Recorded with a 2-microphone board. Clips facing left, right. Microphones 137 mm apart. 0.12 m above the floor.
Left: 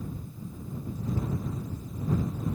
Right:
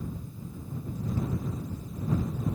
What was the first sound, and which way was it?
Only background noise.